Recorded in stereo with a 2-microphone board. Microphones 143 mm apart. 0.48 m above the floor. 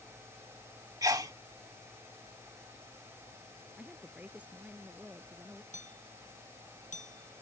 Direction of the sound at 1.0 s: 25° right (ahead or behind).